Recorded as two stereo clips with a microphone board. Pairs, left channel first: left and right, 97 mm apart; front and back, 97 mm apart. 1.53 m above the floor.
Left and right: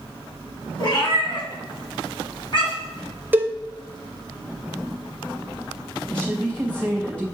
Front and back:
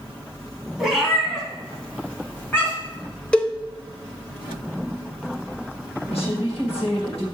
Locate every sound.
0.8 s a cat meowing: 95° left, 2 m; by 3.0 s 65° left, 3 m
3.3 s a cowbell: 60° right, 0.7 m
6.1 s a woman speaking: 10° left, 2.5 m